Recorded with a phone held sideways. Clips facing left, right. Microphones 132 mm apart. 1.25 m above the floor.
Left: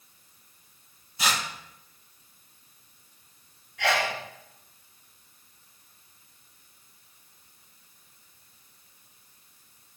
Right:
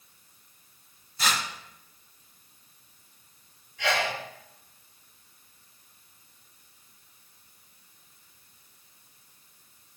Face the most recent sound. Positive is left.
turn(degrees=80)